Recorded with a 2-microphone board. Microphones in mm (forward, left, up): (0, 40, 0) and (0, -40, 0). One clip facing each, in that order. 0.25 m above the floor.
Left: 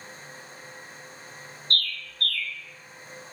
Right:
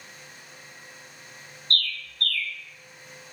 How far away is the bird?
About 0.5 m.